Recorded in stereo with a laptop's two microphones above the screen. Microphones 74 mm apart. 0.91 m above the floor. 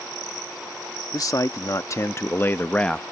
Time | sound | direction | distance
1.1 | a man speaking | 55° left (ahead or behind) | ?